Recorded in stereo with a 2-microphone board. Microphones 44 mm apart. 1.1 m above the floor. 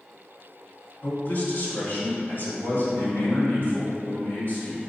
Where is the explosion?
I don't hear an explosion.